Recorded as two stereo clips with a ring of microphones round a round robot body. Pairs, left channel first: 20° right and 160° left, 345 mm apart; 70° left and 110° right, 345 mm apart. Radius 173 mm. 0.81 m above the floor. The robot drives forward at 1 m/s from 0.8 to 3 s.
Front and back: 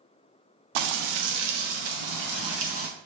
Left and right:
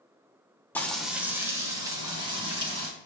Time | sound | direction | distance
0.8 | frying | 155° left | 0.9 m